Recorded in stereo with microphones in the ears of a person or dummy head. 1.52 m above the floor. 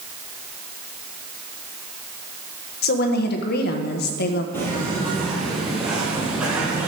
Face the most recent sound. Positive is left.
turn(degrees=-5)  # may be behind; listen again after turning